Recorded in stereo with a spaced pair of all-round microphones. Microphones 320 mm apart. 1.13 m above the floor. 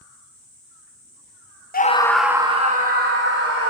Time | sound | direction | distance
1.7 | a scream | 30° left (ahead or behind) | 0.5 m